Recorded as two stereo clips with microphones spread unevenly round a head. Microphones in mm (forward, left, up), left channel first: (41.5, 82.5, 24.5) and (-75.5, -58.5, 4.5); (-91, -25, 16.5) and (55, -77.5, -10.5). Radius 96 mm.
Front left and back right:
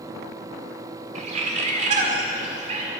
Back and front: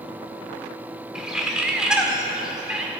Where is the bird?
120° right, 1.4 m.